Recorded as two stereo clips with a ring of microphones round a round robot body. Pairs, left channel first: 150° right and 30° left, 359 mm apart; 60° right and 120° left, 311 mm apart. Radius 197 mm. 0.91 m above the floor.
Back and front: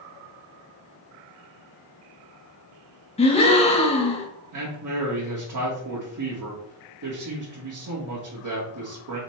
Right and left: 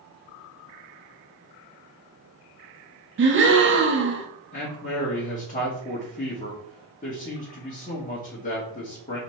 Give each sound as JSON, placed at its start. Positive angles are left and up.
{"t": 3.2, "sound": "a gasp", "azimuth_deg": 145, "distance_m": 0.8}
{"t": 4.5, "sound": "a man speaking", "azimuth_deg": 0, "distance_m": 1.2}